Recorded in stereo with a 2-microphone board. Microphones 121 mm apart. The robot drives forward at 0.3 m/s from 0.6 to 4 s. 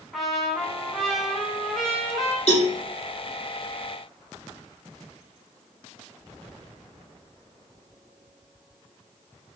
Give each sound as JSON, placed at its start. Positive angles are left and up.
{"t": 0.1, "sound": "a trumpet", "side_deg": 0, "distance_m": 1.2}
{"t": 2.5, "sound": "a cowbell", "side_deg": 60, "distance_m": 1.8}